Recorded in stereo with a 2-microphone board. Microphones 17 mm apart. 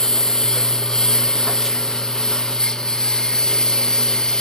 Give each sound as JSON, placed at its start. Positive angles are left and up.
{"t": 0.0, "sound": "a lawn mower", "side_deg": 40}